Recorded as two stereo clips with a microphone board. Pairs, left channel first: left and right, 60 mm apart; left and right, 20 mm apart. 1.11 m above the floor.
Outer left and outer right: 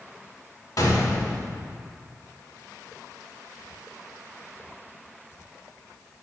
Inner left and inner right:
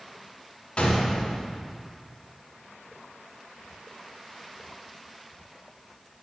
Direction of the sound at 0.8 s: 65° left (ahead or behind).